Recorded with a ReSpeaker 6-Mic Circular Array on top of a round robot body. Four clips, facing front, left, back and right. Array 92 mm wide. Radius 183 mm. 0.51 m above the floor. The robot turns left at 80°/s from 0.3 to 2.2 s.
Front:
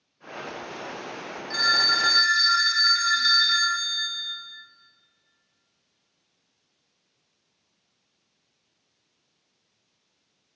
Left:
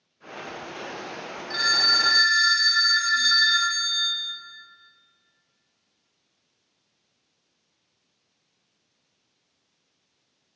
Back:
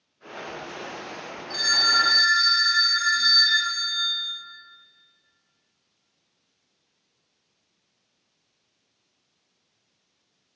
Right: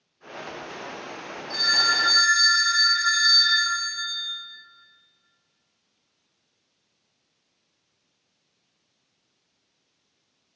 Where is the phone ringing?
55° left, 3 m; by 4.1 s 5° right, 3 m.